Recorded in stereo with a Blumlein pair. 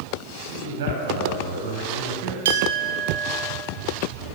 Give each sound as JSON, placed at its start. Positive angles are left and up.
{"t": 0.5, "sound": "a man speaking", "azimuth_deg": -65, "distance_m": 6.5}
{"t": 2.5, "sound": "a clink", "azimuth_deg": -60, "distance_m": 2.5}